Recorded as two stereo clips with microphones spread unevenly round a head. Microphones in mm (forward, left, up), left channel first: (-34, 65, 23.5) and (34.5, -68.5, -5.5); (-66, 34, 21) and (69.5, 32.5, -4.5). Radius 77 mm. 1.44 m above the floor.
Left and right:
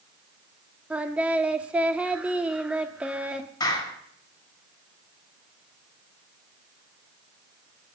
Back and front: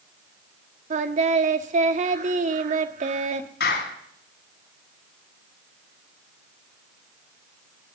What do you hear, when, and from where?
0.9 s singing: 30° left, 1.3 m
3.6 s a clap: 175° right, 7 m